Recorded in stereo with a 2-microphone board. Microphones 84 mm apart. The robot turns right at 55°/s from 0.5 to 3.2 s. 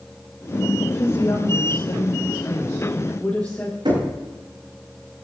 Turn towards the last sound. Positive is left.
turn(degrees=-70)  # may be behind; listen again after turning